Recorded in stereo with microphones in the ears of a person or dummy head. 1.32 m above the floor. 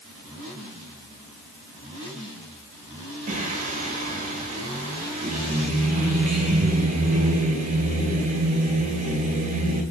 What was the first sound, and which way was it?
Singing, 40° right (ahead or behind).